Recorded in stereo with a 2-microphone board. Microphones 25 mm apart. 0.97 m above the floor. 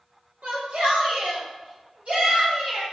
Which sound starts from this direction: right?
A shout, at 0.4 s.